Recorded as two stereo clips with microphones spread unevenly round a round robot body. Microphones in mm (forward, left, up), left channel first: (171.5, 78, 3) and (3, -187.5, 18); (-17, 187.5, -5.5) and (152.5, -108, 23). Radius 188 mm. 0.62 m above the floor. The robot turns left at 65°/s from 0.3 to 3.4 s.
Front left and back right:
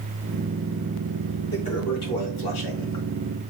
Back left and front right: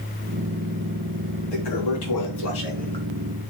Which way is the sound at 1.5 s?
140° left.